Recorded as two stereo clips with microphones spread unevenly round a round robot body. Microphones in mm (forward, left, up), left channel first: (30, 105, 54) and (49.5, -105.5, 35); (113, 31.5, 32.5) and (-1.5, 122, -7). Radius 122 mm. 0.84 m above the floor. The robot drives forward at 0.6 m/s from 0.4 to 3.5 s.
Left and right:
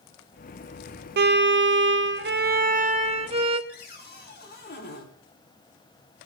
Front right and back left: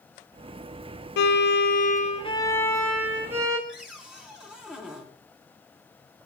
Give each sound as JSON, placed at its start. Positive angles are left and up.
{"t": 1.2, "sound": "a violin", "azimuth_deg": -50, "distance_m": 0.8}
{"t": 3.7, "sound": "a cupboard door", "azimuth_deg": 55, "distance_m": 4.5}